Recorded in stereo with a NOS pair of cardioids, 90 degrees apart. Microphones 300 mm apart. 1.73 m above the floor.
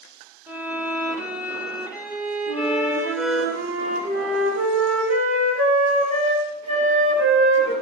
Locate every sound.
0.5 s a violin: 5° right, 1.9 m
2.5 s a flute: 65° right, 5.5 m